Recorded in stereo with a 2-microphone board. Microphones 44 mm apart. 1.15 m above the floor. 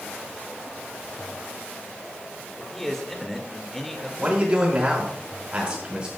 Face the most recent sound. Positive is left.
turn(degrees=-25)  # may be behind; listen again after turning